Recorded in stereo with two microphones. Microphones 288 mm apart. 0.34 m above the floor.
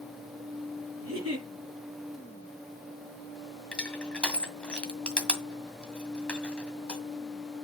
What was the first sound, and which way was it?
A giggle, 55° right (ahead or behind).